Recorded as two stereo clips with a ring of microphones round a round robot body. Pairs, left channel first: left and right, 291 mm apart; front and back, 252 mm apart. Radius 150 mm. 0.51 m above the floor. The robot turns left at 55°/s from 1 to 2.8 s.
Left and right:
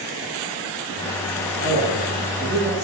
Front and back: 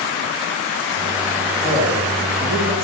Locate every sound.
1.6 s a man speaking: 110° right, 1.3 m; by 2.8 s 175° right, 1.3 m